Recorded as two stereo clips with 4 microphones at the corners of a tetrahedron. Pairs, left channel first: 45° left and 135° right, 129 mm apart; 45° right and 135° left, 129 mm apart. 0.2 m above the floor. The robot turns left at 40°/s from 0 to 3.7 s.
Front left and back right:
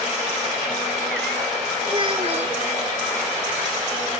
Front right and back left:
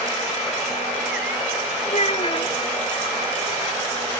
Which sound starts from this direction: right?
A child speaking, at 1.9 s.